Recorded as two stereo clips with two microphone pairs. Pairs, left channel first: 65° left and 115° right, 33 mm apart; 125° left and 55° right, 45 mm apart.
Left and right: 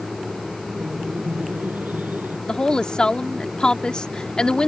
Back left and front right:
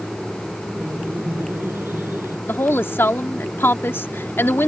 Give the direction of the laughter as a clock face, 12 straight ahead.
3 o'clock.